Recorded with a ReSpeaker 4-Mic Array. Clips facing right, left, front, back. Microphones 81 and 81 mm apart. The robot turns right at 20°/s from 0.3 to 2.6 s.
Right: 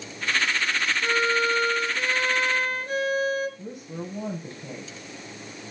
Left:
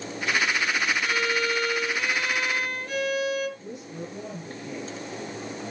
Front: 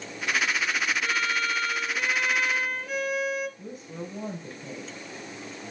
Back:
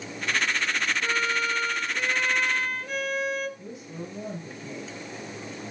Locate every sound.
1.0 s a violin: 120° right, 1.0 m; by 3.5 s 85° right, 1.0 m
3.6 s a woman speaking: 50° right, 3.5 m